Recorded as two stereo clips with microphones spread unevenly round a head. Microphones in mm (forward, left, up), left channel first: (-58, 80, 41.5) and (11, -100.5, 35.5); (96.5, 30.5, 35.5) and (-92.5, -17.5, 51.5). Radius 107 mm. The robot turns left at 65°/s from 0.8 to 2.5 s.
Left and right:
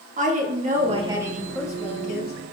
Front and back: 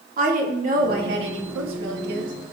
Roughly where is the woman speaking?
Behind right.